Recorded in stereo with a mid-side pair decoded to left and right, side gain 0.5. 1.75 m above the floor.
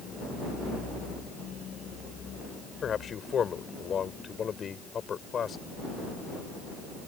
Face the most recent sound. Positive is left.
turn(degrees=45)